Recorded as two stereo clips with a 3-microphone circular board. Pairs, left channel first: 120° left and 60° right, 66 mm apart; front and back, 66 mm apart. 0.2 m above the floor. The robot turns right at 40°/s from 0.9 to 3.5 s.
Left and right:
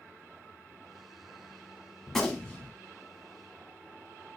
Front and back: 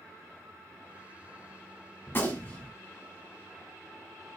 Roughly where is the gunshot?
Ahead left.